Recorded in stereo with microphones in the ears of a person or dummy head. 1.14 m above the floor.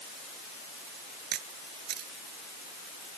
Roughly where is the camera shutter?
Right.